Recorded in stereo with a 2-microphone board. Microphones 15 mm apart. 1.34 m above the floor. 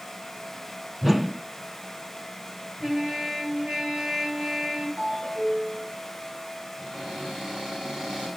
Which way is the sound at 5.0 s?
80° right.